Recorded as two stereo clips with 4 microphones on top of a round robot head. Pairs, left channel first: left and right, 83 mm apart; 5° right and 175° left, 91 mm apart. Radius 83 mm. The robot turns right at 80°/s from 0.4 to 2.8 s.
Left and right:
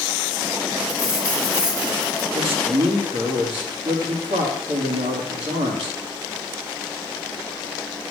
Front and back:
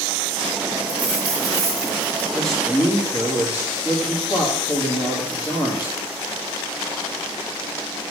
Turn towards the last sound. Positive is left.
turn(degrees=-60)